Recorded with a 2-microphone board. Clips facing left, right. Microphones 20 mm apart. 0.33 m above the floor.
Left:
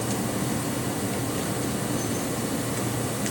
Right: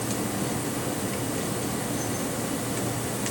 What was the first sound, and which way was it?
Only background noise.